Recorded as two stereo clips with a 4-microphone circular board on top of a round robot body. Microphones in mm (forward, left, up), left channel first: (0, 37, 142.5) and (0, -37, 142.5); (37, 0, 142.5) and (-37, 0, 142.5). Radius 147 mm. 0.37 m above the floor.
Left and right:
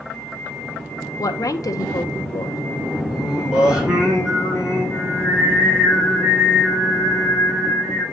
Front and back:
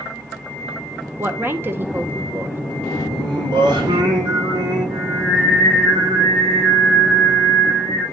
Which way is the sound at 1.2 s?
120° left.